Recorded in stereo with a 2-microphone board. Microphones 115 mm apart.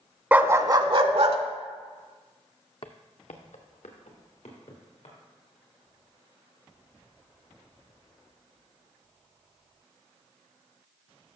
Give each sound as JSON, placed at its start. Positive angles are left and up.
{"t": 0.3, "sound": "a dog barking", "side_deg": -15, "distance_m": 0.5}
{"t": 2.8, "sound": "footsteps", "side_deg": 55, "distance_m": 0.7}